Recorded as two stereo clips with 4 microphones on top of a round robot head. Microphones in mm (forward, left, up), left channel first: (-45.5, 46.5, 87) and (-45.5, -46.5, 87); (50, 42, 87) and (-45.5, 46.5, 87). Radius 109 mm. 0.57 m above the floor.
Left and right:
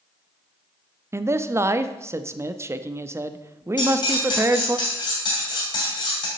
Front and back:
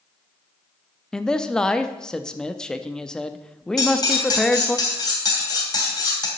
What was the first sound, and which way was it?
A man speaking, 75° right.